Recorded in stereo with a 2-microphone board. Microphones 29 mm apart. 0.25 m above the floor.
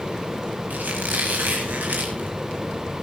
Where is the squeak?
85° right, 7.5 m.